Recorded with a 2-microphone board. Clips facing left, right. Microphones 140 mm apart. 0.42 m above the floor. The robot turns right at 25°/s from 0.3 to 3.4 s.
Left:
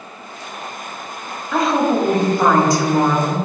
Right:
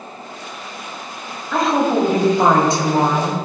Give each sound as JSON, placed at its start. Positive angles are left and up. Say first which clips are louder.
{"t": 1.5, "sound": "a woman speaking", "louder": "even", "azimuth_deg": 175, "distance_m": 1.9}